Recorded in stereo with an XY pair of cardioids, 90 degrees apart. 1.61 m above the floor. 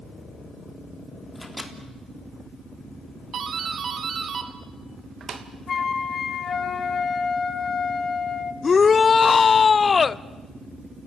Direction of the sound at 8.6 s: 40° left.